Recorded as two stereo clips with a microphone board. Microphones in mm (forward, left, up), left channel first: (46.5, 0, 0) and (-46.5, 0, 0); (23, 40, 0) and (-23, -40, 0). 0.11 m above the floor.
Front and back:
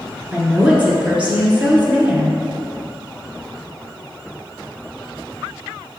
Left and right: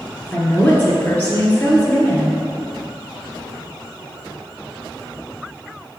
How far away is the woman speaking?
About 1.2 m.